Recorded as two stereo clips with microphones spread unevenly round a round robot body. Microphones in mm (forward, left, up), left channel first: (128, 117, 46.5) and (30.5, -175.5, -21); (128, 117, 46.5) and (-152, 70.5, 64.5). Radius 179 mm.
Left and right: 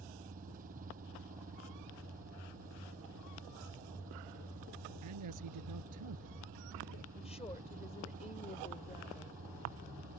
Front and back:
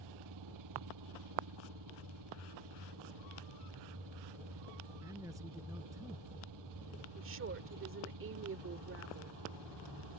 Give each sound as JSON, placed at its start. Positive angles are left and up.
{"t": 0.0, "sound": "an engine running", "azimuth_deg": 180}
{"t": 5.0, "sound": "a man speaking", "azimuth_deg": -90}
{"t": 7.2, "sound": "a woman speaking", "azimuth_deg": 150}